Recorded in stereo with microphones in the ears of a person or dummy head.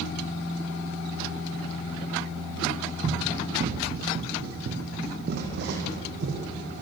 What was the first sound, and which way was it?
Running footsteps, 40° right (ahead or behind).